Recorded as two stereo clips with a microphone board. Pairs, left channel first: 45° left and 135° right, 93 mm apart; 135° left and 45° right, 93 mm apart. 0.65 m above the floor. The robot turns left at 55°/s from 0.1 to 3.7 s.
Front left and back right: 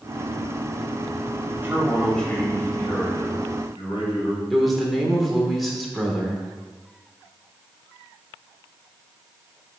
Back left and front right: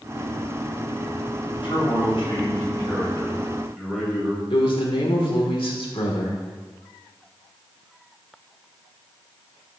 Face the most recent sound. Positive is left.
turn(degrees=135)